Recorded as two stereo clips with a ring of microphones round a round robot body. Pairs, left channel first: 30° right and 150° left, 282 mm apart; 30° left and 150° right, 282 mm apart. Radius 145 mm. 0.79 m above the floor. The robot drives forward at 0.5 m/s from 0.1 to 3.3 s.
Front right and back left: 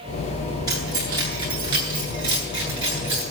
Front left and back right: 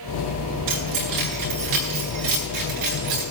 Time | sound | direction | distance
0.7 | keys jangling | 130° right | 9.5 m